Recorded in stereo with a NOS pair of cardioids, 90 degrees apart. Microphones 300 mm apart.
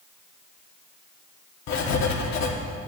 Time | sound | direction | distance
1.7 | writing | 65° left | 1.4 m